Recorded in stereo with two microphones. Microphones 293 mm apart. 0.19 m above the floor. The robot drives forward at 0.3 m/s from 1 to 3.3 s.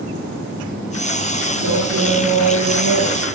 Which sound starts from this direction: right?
A man speaking, at 1.6 s.